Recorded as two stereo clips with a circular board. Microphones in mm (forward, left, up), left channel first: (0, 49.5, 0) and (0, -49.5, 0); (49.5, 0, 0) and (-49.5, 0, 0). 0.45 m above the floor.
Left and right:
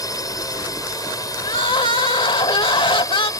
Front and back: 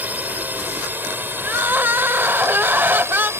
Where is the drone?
115° left; by 3.4 s 130° left.